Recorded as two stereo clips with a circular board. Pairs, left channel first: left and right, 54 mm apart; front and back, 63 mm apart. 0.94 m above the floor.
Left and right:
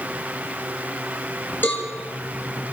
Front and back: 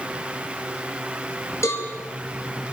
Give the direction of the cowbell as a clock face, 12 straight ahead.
11 o'clock.